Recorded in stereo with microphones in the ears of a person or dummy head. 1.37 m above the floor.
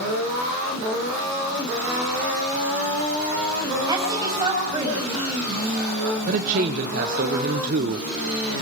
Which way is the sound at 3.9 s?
30° right (ahead or behind).